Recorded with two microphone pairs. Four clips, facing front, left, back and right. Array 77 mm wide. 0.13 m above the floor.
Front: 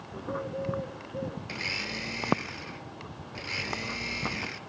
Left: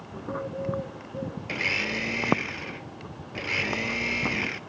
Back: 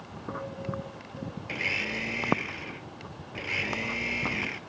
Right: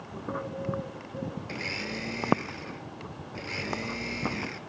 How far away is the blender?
About 0.7 m.